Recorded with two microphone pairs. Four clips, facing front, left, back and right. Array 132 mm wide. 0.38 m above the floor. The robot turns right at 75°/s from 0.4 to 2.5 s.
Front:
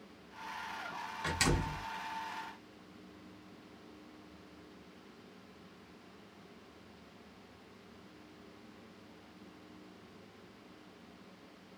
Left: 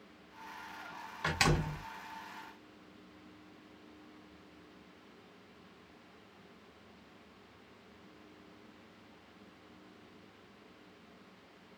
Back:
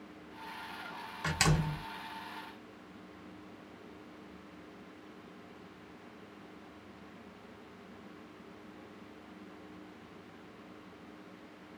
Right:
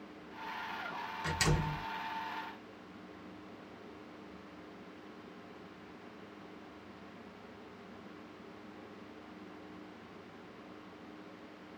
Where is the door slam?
110° left, 0.8 m; by 1.8 s 155° left, 0.8 m.